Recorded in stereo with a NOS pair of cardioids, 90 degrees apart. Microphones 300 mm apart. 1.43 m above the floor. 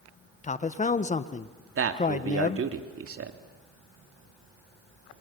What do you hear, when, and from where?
0.4 s a man speaking: 25° left, 1.4 m
1.8 s a man speaking: 50° right, 2.5 m